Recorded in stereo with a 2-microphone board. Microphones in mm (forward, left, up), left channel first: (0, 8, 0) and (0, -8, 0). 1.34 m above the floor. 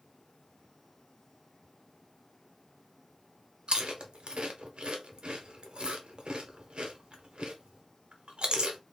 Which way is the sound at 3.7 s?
65° right (ahead or behind).